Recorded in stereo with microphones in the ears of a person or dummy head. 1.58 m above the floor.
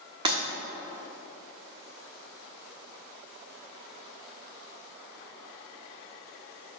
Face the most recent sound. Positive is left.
turn(degrees=-20)  # may be behind; listen again after turning